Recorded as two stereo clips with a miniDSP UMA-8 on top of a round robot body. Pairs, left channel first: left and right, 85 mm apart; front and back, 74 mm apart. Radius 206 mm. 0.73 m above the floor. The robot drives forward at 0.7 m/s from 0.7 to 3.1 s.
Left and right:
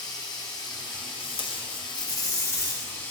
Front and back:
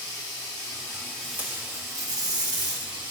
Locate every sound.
0.0 s running water: 45° left, 0.7 m; by 3.1 s 155° left, 1.3 m
1.2 s tape being pulled: 100° left, 0.7 m; by 3.0 s 155° left, 1.5 m